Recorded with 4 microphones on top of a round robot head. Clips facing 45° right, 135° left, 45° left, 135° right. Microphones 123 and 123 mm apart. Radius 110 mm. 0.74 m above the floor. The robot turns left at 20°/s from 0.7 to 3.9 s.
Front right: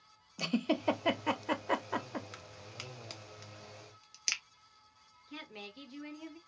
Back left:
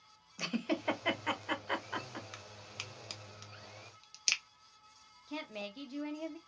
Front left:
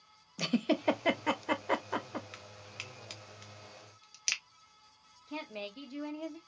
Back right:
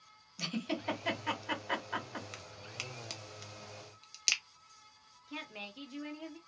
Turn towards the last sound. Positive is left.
turn(degrees=100)